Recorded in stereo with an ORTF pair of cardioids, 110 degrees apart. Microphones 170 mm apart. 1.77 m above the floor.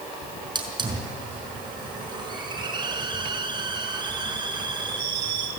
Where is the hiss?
30° right, 5 m.